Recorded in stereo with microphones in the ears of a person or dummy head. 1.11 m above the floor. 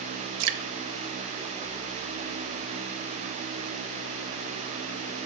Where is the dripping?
60° right (ahead or behind), 0.8 m.